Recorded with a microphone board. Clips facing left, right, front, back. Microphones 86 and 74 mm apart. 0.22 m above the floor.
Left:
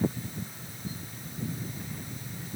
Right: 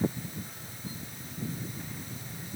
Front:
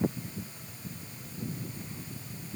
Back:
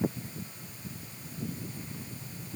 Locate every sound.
Only background noise.